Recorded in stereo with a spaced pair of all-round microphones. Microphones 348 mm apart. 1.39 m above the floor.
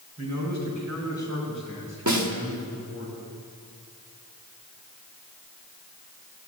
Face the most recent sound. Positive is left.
turn(degrees=-55)  # may be behind; listen again after turning